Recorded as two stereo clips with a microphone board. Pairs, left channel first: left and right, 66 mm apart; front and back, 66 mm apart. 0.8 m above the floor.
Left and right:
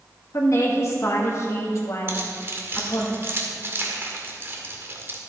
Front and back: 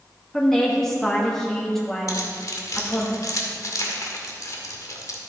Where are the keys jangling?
35° right, 1.5 m.